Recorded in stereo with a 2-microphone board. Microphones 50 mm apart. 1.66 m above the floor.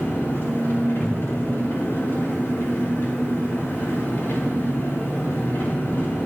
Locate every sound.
0.0 s an engine running: 55° left (ahead or behind), 2 m
1.0 s a cupboard door: centre (ahead or behind), 0.8 m